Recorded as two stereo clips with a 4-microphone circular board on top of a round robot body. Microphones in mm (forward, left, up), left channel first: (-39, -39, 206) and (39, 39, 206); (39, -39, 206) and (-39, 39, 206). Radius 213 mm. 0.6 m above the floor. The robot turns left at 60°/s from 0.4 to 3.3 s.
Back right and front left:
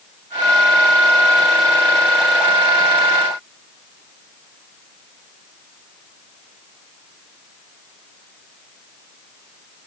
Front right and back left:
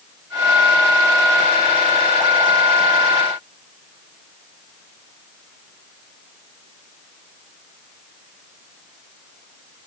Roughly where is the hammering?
No hammering in this recording.